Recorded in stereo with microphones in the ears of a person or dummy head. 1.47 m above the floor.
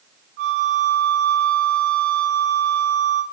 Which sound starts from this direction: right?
A flute, at 0.4 s.